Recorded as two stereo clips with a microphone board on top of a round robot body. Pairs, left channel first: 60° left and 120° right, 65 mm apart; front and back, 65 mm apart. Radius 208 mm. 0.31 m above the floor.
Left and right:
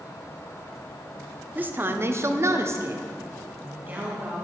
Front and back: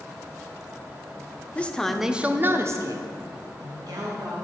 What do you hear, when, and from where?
1.6 s a woman speaking: 65° right, 1.3 m; by 4.5 s 175° left, 3 m